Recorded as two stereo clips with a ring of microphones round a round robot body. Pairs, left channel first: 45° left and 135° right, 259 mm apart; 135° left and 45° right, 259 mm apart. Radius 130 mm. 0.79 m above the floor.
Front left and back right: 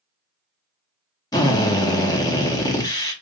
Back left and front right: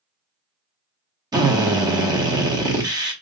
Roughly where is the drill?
Ahead.